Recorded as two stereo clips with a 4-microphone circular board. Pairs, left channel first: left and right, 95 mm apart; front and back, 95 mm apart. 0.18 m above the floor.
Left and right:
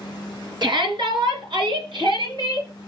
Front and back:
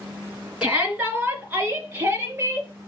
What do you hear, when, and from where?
0.6 s a shout: 105° right, 2.5 m; by 2.7 s 115° right, 4 m